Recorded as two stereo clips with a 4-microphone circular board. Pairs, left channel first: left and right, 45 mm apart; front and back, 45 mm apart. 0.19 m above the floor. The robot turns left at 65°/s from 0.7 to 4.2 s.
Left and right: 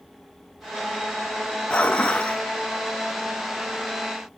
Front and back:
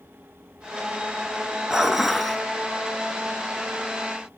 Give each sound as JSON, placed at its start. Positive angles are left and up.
{"t": 1.7, "sound": "dishes clattering", "azimuth_deg": 120, "distance_m": 0.8}